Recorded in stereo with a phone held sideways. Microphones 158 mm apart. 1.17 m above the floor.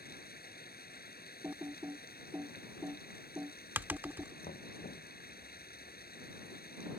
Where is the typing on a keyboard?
10° right (ahead or behind).